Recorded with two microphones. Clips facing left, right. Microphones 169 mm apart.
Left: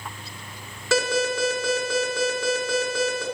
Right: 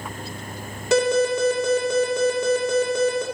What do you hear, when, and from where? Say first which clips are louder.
0.9 s an alarm: right 5 dB; 20° right (ahead or behind), 2 m